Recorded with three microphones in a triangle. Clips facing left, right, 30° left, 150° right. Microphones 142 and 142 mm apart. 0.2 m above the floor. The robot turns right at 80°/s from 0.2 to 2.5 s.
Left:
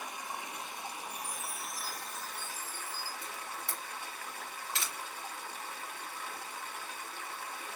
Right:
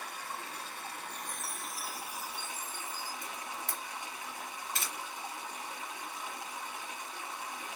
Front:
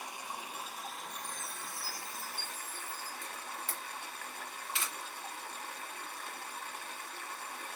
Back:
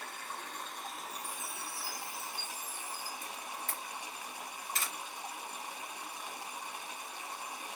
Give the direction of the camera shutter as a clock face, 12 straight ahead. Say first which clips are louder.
Right 1 dB, back 1 dB; 4 o'clock.